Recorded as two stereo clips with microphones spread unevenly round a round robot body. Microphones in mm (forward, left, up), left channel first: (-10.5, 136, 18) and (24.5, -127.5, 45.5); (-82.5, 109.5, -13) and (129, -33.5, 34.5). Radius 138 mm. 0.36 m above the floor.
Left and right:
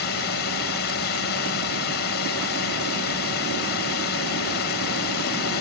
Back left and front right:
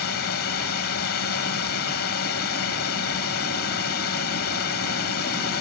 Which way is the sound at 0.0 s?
130° left.